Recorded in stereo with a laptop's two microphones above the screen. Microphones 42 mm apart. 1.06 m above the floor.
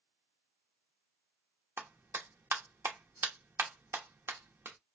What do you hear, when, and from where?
1.8 s a clap: 75° right (ahead or behind), 1.0 m